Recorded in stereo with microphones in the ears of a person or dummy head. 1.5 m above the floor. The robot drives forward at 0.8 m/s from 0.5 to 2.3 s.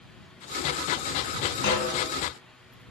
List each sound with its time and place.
1.6 s a snare drum: 55° left (ahead or behind), 5.5 m